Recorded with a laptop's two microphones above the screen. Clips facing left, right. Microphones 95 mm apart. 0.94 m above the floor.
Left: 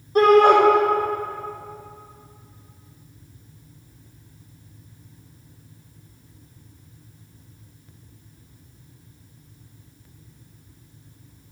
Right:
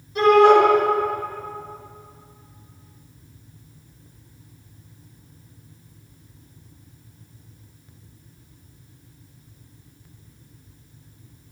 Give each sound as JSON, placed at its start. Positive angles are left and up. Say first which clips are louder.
{"t": 0.1, "sound": "a shout", "louder": "even", "side_deg": 60, "distance_m": 3.5}